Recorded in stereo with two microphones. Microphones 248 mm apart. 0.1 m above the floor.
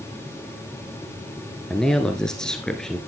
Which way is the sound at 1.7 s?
Centre (ahead or behind).